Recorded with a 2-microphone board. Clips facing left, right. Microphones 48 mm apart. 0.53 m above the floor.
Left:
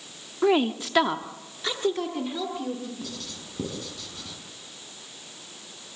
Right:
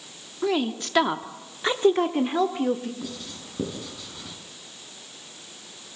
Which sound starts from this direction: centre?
Writing, at 3.0 s.